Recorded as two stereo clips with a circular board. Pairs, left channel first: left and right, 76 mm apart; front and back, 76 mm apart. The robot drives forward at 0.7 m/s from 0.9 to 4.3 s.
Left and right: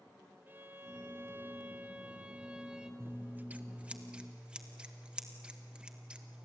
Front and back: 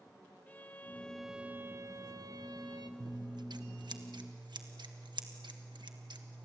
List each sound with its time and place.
0.5 s a violin: 45° right, 0.6 m; by 2.9 s 170° right, 1.3 m
3.0 s scissors: 150° right, 0.7 m; by 6.5 s 165° right, 1.5 m